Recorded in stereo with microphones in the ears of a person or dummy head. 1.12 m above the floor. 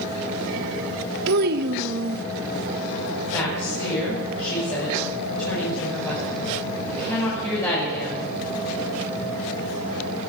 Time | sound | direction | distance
1.3 | a child speaking | 55° right (ahead or behind) | 0.7 m
3.3 | a woman speaking | 15° left (ahead or behind) | 5.5 m